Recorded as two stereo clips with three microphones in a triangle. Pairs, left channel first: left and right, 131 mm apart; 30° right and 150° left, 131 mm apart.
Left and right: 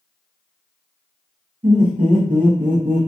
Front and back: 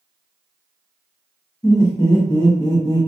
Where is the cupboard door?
I don't hear a cupboard door.